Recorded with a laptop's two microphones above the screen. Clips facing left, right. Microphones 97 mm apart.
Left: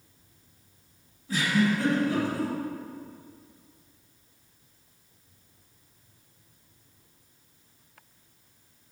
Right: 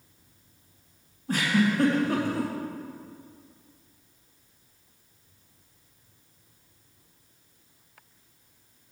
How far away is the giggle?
About 2.5 m.